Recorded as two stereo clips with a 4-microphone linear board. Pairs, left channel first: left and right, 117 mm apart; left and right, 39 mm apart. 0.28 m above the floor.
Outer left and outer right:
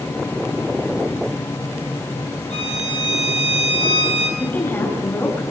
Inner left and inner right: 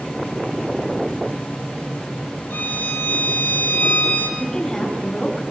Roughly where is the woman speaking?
Centre.